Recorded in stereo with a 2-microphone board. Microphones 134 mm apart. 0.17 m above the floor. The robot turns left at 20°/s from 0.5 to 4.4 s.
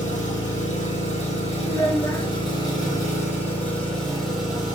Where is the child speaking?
35° left (ahead or behind), 1.9 m; by 2.3 s 25° left (ahead or behind), 1.9 m.